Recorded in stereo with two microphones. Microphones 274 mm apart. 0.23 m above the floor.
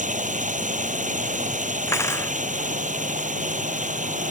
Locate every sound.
0.0 s running water: 25° right (ahead or behind)
1.9 s cutlery clinking: 10° left (ahead or behind)